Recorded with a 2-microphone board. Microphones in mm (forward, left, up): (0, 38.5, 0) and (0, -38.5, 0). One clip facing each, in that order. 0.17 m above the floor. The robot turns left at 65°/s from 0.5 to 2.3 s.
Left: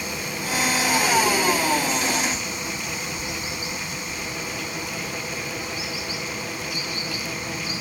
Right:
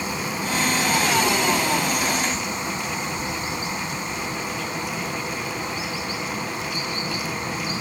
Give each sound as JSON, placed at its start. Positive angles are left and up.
{"t": 0.0, "sound": "running water", "azimuth_deg": -25, "distance_m": 1.4}